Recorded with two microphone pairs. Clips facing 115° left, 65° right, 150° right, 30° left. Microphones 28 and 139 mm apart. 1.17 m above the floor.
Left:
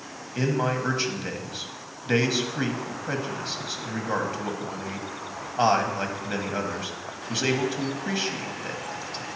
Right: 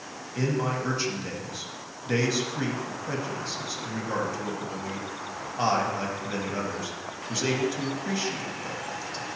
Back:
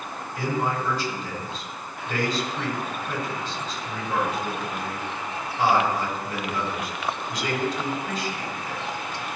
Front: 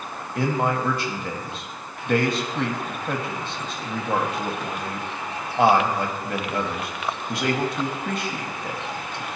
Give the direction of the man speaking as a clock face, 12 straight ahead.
10 o'clock.